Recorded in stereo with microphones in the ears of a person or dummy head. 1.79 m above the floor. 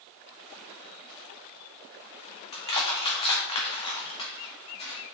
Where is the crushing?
35° left (ahead or behind), 1.9 m.